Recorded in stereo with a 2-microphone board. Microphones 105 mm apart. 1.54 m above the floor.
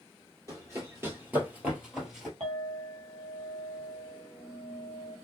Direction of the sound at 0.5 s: 30° right (ahead or behind).